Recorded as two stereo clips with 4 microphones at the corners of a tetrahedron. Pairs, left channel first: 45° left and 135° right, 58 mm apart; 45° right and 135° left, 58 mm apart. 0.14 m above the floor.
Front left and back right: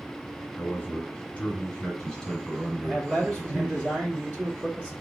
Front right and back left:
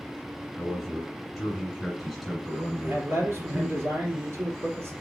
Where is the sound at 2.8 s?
160° left, 2.5 m.